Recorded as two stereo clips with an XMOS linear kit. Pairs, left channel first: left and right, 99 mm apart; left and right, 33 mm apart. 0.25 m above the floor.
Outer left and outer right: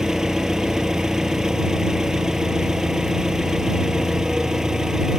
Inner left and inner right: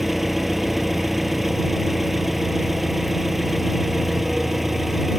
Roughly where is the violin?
I don't hear a violin.